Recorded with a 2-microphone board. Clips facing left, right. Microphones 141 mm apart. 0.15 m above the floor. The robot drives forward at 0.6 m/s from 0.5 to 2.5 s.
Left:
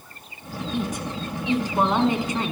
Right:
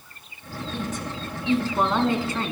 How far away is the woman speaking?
About 1.6 m.